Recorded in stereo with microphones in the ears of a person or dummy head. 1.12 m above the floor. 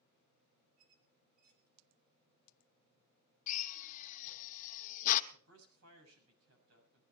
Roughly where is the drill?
Left.